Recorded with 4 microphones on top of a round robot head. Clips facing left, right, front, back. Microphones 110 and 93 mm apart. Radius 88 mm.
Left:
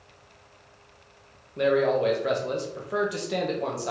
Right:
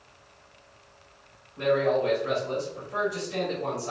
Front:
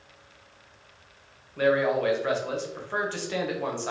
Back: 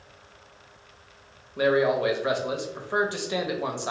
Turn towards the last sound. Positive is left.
turn(degrees=105)